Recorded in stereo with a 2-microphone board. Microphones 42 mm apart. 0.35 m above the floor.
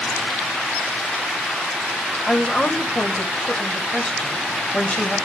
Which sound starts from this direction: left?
A woman speaking, at 2.3 s.